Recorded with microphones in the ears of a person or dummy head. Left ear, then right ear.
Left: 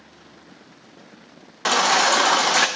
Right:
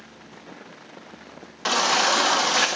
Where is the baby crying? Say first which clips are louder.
Left 3 dB; 20° left (ahead or behind), 0.7 m.